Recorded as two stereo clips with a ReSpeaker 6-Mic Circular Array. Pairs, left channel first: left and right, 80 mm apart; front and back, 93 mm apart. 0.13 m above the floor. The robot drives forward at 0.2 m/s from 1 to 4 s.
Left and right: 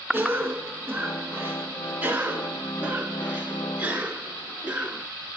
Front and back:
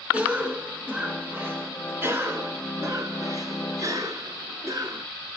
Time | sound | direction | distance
0.1 | a cough | 125° right | 1.1 m